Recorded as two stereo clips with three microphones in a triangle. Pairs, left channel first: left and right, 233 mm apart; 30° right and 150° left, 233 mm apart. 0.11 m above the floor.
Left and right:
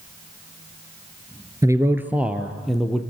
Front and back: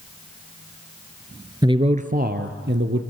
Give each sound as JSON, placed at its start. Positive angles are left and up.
{"t": 1.6, "sound": "a man speaking", "azimuth_deg": -155, "distance_m": 1.4}